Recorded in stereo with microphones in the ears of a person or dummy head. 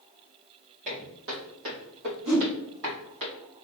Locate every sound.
0.8 s footsteps: 40° right (ahead or behind), 1.7 m; by 3.2 s 65° right (ahead or behind), 2.5 m
2.2 s a whoosh: 35° right (ahead or behind), 1.9 m